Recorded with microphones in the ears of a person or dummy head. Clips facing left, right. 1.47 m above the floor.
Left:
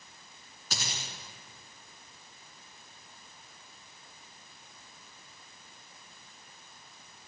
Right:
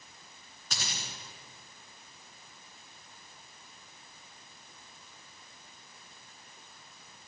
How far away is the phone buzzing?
No phone buzzing in this recording.